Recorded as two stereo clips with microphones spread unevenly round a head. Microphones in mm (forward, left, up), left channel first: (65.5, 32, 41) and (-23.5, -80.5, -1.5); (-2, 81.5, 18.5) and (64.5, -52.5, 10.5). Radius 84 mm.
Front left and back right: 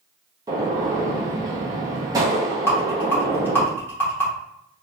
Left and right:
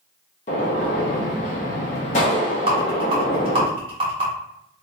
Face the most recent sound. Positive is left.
turn(degrees=-10)